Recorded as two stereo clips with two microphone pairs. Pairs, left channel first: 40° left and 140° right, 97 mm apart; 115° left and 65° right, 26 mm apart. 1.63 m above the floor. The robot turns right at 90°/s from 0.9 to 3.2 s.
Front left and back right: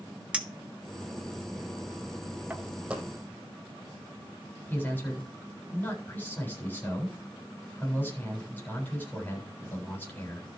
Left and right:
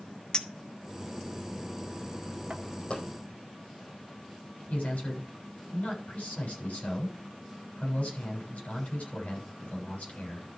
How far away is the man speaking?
About 7.5 m.